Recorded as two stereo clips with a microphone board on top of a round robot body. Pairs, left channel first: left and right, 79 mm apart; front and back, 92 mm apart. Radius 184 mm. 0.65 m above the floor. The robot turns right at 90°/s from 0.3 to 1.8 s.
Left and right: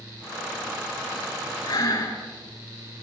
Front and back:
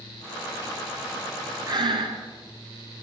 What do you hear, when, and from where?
1.7 s breathing: 130° left, 3 m; by 2.2 s 140° left, 3 m